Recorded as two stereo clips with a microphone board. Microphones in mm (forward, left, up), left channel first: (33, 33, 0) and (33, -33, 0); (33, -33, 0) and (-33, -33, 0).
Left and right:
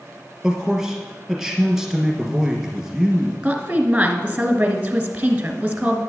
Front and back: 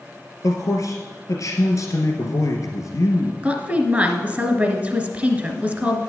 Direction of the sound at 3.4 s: 140° right.